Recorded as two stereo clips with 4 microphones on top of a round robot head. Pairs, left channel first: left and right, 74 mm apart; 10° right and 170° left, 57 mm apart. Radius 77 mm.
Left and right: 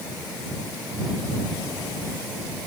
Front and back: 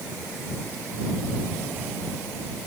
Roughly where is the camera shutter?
I don't hear a camera shutter.